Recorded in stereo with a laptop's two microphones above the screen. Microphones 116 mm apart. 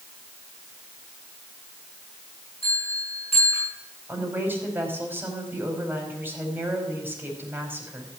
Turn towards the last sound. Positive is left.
turn(degrees=-20)  # may be behind; listen again after turning